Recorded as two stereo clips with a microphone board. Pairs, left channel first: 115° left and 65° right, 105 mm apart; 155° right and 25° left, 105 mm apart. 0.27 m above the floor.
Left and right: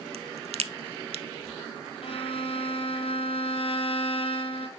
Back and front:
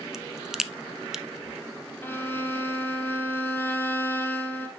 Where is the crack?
60° right, 0.5 m.